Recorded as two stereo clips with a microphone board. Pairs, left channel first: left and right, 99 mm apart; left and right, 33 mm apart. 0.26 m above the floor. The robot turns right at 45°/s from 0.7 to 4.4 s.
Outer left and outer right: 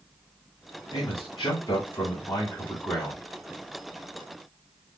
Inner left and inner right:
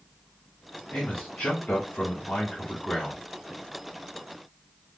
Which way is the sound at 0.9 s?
85° left.